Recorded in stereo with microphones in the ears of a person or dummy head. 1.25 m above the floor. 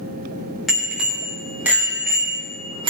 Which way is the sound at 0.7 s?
Centre (ahead or behind).